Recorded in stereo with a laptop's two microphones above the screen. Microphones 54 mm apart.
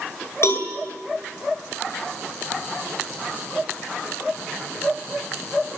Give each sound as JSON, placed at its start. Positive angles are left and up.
{"t": 0.4, "sound": "a cowbell", "side_deg": 50, "distance_m": 4.0}